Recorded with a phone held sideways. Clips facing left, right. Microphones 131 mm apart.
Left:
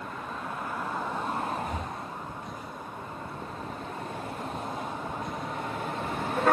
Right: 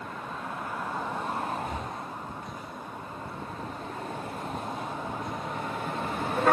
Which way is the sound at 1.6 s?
45° left (ahead or behind).